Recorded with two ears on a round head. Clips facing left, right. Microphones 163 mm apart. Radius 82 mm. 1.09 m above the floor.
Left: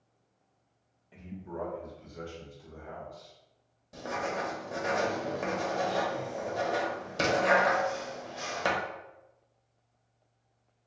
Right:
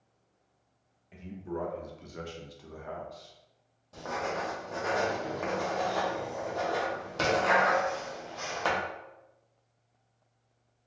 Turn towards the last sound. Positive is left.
turn(degrees=15)  # may be behind; listen again after turning